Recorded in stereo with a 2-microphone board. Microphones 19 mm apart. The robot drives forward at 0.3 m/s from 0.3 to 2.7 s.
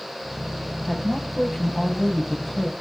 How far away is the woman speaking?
About 5 m.